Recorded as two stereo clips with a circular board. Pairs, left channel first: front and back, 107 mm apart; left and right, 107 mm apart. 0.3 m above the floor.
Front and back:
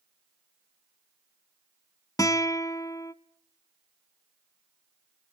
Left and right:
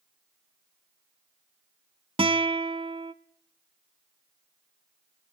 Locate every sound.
2.2 s a guitar: 60° right, 0.8 m